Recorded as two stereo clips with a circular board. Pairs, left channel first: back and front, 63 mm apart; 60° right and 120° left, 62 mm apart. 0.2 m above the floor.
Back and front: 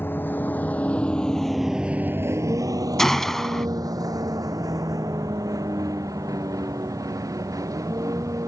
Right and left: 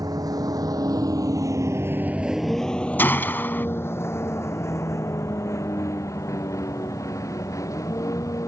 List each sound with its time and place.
0.0 s a vehicle: 125° left; by 8.5 s 30° right
3.0 s a gunshot: 95° right